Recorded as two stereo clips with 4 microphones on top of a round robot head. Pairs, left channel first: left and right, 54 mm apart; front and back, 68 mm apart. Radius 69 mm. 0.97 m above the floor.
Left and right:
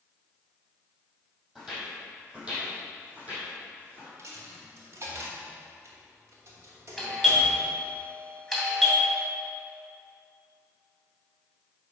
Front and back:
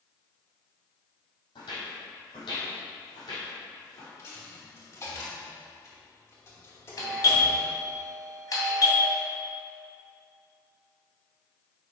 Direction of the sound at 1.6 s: 10° right.